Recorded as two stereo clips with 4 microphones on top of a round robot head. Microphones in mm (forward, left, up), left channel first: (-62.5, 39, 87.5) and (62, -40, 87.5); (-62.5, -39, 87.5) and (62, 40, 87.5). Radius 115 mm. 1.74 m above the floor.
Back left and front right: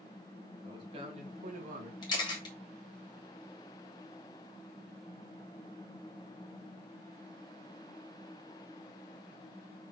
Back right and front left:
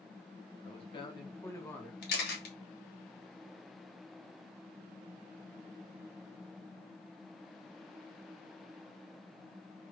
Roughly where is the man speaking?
Right.